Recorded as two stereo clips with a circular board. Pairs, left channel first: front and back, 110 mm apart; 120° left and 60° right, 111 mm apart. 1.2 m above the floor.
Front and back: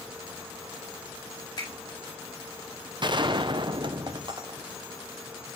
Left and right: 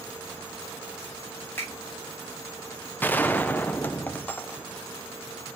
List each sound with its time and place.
1.6 s a finger snap: 50° left, 5.5 m
3.0 s a gunshot: 175° right, 0.6 m